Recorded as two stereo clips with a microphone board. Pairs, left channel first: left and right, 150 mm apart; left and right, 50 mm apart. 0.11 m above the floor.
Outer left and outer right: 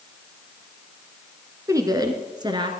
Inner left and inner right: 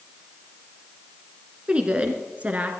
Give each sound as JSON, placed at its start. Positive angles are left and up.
{"t": 1.7, "sound": "a woman speaking", "side_deg": -20, "distance_m": 1.3}